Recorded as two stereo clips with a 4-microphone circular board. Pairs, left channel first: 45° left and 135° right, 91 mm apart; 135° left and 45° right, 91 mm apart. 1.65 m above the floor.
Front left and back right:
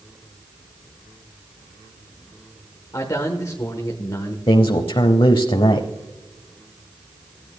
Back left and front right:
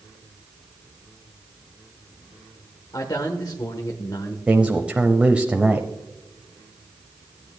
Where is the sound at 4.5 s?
30° left, 0.7 m.